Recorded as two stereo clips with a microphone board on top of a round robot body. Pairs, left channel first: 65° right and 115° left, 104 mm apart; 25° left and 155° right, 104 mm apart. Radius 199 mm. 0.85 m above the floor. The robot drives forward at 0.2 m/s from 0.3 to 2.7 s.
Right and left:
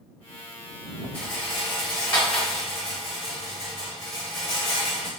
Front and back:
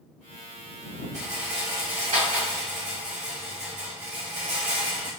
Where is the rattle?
140° right, 0.8 m; by 5.1 s 150° right, 1.0 m.